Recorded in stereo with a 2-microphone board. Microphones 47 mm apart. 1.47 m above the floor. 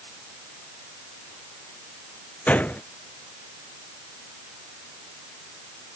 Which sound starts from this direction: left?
A gunshot, at 2.5 s.